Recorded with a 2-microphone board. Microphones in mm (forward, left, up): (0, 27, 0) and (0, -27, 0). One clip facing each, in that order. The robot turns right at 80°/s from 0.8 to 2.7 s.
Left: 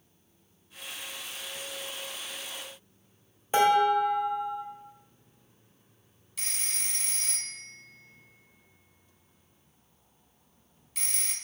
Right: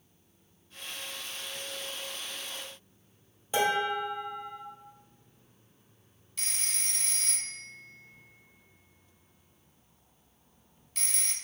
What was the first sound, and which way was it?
Dishes clattering, 35° left (ahead or behind).